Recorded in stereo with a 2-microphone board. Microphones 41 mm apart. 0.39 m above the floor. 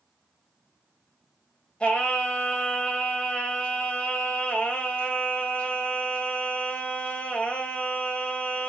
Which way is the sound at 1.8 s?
30° left (ahead or behind).